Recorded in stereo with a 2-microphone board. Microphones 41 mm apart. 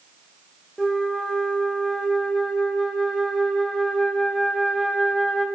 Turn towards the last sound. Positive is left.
turn(degrees=-5)  # may be behind; listen again after turning